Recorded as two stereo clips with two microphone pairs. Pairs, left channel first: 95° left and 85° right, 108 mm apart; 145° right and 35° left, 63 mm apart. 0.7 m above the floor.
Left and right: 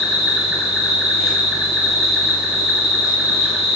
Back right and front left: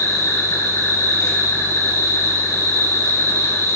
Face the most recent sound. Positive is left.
turn(degrees=-170)